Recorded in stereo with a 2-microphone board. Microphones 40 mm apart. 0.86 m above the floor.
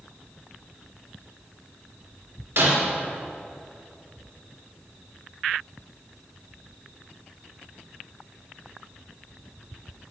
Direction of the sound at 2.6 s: 60° right (ahead or behind).